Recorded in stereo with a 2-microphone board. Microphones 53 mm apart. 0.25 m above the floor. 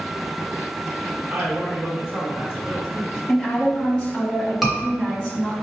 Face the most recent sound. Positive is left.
turn(degrees=0)  # may be behind; listen again after turning